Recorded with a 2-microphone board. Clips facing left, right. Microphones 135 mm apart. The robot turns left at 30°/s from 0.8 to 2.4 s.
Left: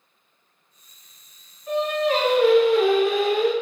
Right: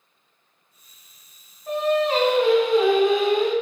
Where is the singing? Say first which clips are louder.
Right 1 dB; 45° right (ahead or behind), 1.2 m; by 3.5 s 25° right (ahead or behind), 1.2 m.